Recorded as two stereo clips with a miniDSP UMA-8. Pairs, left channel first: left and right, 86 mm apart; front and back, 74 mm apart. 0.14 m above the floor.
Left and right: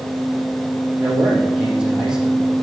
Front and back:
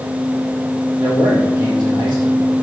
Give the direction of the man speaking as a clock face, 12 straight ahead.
6 o'clock.